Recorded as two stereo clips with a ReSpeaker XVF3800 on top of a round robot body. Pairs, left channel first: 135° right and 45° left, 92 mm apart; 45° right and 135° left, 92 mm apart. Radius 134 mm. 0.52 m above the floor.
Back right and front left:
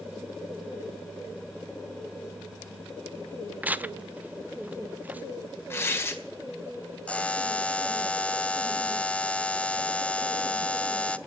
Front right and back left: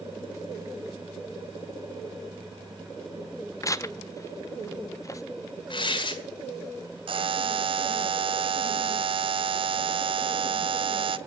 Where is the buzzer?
150° left, 0.6 m.